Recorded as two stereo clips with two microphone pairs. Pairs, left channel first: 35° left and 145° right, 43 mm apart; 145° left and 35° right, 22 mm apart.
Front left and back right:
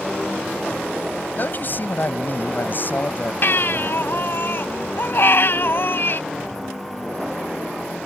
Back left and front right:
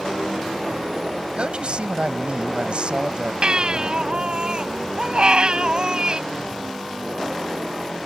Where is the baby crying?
5° left.